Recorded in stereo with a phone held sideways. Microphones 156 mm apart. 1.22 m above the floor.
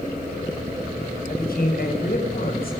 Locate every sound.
1.3 s a woman speaking: 75° left (ahead or behind), 5.5 m